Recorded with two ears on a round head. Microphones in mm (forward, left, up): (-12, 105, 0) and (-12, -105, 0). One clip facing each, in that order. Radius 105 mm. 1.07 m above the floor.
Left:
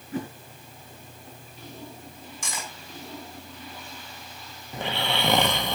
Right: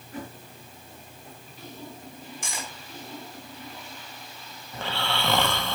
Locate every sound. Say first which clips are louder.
0.1 s a whoosh: left 6 dB; 65° left (ahead or behind), 5 m
2.4 s cutlery clinking: left 2 dB; 70° left (ahead or behind), 5.5 m
4.7 s snoring: left 2 dB; 15° left (ahead or behind), 1.0 m